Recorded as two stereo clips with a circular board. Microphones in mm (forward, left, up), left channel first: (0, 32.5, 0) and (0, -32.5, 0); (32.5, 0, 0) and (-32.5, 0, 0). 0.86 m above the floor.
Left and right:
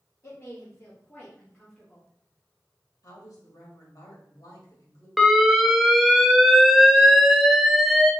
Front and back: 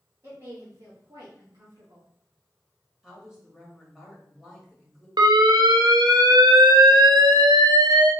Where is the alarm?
Straight behind, 0.6 m.